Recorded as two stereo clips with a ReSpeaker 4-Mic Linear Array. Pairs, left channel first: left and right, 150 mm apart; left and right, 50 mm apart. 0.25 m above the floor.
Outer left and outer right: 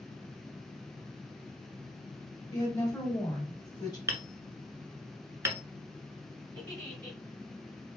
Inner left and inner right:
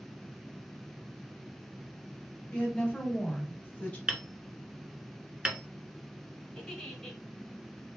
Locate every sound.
2.5 s a woman speaking: 30° left (ahead or behind), 1.9 m
4.1 s hammering: 20° right (ahead or behind), 0.8 m
6.5 s a giggle: 10° left (ahead or behind), 1.1 m